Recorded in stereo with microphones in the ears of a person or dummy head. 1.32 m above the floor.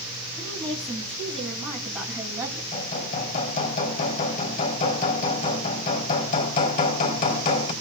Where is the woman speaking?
10° left (ahead or behind), 6.5 m; by 2.6 s 10° right (ahead or behind), 7 m.